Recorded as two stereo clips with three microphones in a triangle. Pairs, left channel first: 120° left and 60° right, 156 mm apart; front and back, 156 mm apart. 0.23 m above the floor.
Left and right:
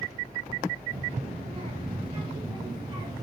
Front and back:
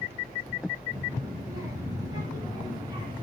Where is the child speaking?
110° right, 4 m; by 3.2 s 120° right, 2.5 m.